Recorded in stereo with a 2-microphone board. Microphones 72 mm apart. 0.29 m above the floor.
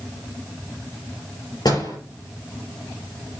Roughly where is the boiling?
I don't hear boiling.